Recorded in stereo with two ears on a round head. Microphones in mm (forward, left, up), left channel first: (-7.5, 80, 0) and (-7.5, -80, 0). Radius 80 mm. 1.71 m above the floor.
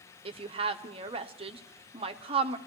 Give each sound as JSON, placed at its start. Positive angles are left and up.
{"t": 0.2, "sound": "a woman speaking", "side_deg": -30, "distance_m": 0.7}